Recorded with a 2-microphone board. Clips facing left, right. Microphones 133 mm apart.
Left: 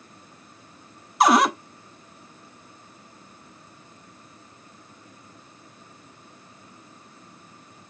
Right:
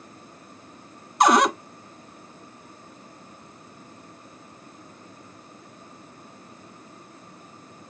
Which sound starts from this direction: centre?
A cupboard door, at 1.2 s.